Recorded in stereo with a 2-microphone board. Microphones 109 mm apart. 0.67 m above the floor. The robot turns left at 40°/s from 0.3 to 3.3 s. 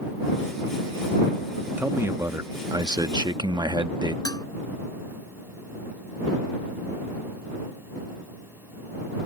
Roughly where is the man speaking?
Ahead right.